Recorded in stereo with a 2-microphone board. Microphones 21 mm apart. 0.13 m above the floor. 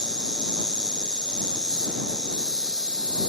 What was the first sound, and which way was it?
An insect, 40° left (ahead or behind).